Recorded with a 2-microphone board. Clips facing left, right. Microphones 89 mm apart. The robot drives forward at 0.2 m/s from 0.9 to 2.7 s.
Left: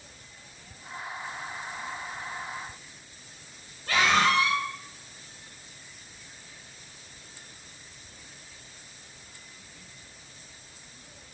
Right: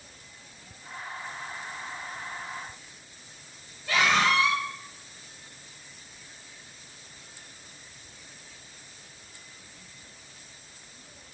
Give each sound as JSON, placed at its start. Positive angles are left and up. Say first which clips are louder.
{"t": 3.9, "sound": "a scream", "louder": "left 1 dB", "side_deg": 50, "distance_m": 2.0}